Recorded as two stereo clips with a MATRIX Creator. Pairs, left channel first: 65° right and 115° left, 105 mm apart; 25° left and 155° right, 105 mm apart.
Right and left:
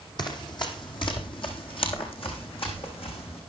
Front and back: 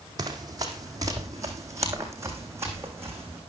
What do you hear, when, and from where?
0.2 s running footsteps: 110° right, 2.5 m; by 3.4 s 90° right, 4 m